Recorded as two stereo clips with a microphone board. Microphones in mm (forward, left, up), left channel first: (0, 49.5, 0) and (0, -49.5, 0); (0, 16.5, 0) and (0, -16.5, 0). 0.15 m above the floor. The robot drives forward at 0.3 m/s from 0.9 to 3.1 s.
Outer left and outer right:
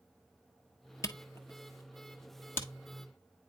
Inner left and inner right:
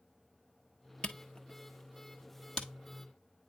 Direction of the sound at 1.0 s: 35° left (ahead or behind).